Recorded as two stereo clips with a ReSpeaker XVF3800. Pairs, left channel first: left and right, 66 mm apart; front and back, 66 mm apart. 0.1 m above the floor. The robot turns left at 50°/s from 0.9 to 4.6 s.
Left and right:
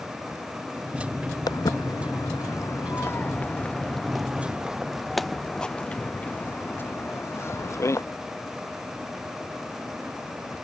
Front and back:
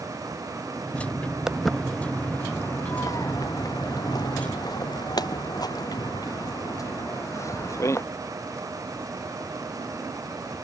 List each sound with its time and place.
1.5 s footsteps: 100° left; by 8.0 s 45° left